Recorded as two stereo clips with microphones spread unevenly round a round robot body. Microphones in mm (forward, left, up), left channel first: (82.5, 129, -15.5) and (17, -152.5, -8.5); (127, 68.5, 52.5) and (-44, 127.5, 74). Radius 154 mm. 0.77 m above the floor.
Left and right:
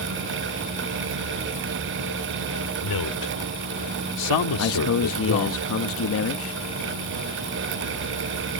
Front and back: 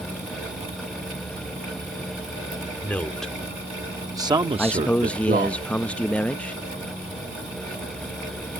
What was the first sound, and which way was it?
A man speaking, 60° left.